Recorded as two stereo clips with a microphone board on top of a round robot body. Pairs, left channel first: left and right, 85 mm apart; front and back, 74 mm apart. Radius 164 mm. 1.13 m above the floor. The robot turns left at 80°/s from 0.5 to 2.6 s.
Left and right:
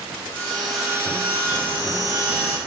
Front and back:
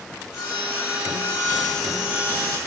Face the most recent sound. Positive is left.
turn(degrees=-145)